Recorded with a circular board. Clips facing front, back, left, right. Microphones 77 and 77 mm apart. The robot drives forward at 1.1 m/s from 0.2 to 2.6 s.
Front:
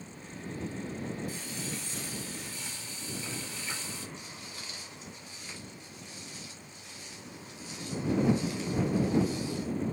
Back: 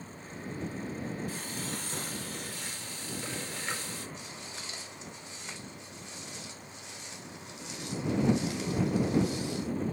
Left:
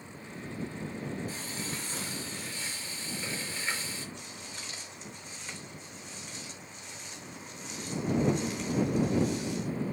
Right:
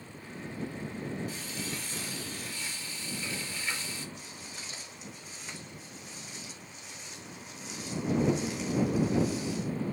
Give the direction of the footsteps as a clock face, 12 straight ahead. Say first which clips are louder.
Back 1 dB, left 1 dB; 6 o'clock.